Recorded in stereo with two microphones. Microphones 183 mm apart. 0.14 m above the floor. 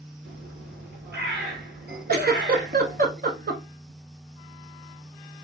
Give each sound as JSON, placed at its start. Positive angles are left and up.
{"t": 0.2, "sound": "a bird", "side_deg": -65, "distance_m": 3.0}
{"t": 2.1, "sound": "a giggle", "side_deg": -55, "distance_m": 0.8}